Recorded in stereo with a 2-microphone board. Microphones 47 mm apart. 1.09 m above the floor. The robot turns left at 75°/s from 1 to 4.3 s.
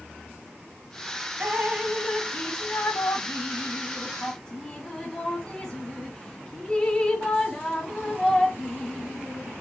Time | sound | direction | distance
1.4 | dripping | 45° right (ahead or behind) | 0.9 m